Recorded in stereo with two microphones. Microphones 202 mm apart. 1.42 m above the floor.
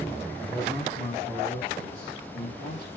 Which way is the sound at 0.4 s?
5° left (ahead or behind).